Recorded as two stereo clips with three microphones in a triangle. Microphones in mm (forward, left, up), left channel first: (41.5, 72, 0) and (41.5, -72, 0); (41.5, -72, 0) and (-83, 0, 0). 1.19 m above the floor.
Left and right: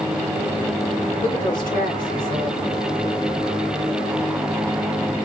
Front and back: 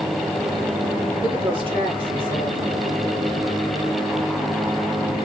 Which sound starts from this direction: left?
A woman speaking, at 1.2 s.